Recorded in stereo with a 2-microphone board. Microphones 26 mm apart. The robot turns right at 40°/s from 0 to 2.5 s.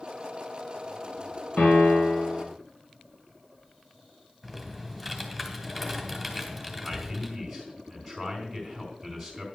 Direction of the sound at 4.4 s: 5° left (ahead or behind).